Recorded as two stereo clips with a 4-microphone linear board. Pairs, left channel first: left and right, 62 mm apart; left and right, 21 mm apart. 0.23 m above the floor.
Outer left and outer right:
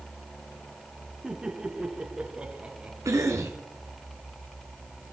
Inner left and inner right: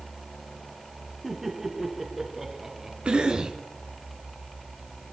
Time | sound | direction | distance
1.2 | laughter | 15° right (ahead or behind) | 2.5 m
3.0 | a cough | 55° right (ahead or behind) | 2.5 m